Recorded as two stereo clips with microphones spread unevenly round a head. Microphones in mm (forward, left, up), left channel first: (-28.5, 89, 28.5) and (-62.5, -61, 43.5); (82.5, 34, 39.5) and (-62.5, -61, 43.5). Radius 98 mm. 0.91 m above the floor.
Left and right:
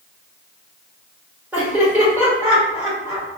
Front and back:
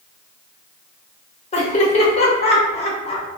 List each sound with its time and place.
1.5 s laughter: 20° right, 1.3 m